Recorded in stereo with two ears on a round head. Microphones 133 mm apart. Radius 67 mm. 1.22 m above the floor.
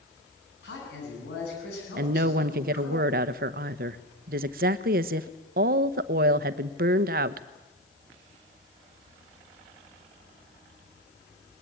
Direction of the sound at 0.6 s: 80° left.